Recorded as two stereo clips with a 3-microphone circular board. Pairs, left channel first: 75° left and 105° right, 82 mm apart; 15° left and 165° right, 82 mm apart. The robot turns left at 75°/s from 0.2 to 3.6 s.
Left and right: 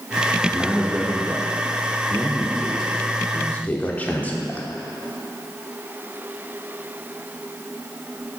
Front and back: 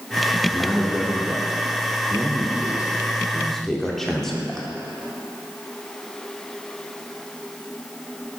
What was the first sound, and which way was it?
A man speaking, 35° right.